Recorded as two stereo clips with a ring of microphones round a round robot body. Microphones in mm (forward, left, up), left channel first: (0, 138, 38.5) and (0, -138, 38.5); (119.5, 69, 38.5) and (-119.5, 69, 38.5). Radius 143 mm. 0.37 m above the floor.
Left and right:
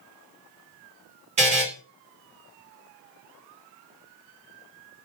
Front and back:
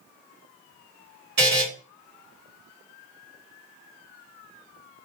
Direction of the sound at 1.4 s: 150° right.